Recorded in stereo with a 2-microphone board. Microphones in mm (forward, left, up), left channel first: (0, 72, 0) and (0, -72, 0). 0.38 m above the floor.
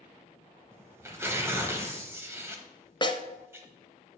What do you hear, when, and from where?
0.7 s tearing paper: 15° right (ahead or behind), 1.1 m
3.0 s a snare drum: 30° left (ahead or behind), 0.7 m